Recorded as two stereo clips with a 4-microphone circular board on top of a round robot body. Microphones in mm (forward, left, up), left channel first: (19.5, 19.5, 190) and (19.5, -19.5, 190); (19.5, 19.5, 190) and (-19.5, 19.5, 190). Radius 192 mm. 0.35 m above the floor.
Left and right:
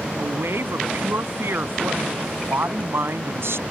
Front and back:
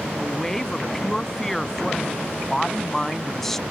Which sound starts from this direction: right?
A woman speaking, at 0.2 s.